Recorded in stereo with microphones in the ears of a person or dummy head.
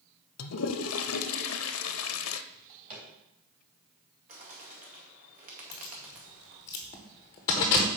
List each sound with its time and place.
0.4 s a toilet flushing: 80° left, 0.6 m
2.5 s a drawer: 40° right (ahead or behind), 3 m
4.3 s a bird: 45° right (ahead or behind), 2.0 m
5.7 s keys jangling: 15° left (ahead or behind), 0.8 m